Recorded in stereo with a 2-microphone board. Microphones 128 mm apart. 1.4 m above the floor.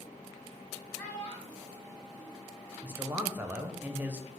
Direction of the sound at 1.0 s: 15° left (ahead or behind).